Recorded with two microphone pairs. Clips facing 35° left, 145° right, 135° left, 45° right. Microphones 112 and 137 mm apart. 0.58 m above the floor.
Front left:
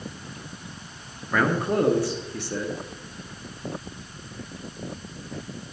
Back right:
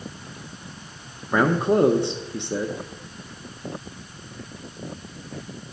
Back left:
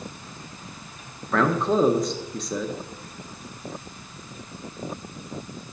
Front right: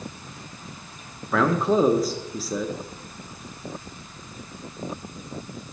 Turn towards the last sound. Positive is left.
turn(degrees=-125)